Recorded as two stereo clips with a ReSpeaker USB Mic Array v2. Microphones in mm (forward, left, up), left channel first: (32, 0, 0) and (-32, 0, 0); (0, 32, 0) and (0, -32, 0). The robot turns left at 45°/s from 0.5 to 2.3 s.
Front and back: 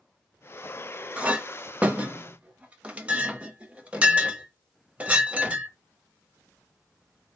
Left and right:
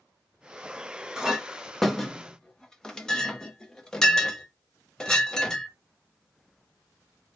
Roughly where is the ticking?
No ticking in this recording.